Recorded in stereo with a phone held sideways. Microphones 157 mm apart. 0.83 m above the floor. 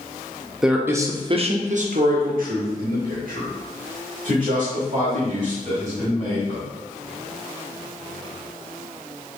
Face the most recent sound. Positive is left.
turn(degrees=-60)  # may be behind; listen again after turning